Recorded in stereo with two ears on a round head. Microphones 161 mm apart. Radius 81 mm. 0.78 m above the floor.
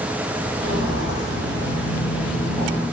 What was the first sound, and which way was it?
Footsteps, 30° right (ahead or behind).